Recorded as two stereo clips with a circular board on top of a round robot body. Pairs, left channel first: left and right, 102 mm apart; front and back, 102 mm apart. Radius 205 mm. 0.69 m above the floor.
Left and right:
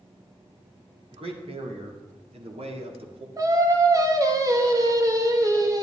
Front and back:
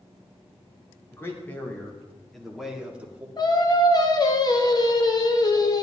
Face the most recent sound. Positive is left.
turn(degrees=-40)